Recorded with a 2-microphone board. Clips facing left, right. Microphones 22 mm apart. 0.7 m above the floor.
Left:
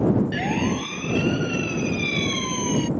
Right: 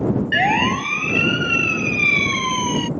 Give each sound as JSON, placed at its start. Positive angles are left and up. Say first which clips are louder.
{"t": 0.3, "sound": "a siren", "louder": "right 7 dB", "side_deg": -55}